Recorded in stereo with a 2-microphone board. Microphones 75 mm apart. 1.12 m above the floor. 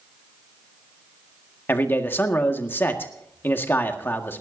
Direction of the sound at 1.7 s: 30° left (ahead or behind).